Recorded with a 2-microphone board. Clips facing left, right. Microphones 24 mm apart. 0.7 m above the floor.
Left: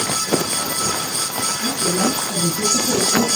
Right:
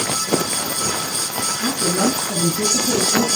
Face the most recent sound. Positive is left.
turn(degrees=-45)  # may be behind; listen again after turning